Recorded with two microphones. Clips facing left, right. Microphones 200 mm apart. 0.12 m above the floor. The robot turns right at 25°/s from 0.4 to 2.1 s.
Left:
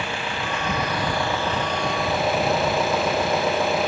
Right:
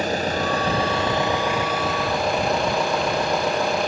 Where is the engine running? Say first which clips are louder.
Right 6 dB; 40° right; by 3.9 s straight ahead.